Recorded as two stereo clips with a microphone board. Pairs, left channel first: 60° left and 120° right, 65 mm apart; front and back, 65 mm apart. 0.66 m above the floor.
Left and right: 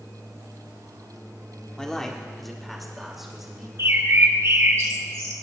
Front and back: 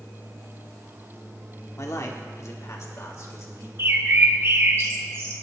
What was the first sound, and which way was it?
A man speaking, 15° right.